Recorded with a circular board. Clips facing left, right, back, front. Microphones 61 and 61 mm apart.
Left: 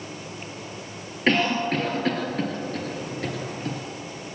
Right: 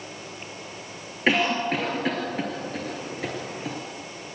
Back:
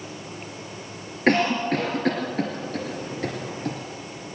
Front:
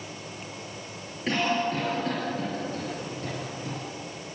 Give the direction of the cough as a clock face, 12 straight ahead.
6 o'clock.